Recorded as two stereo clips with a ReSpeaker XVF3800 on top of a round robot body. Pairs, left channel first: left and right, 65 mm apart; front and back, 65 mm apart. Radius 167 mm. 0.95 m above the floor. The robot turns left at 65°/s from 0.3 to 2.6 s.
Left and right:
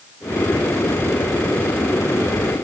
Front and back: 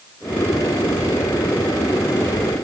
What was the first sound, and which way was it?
Only background noise.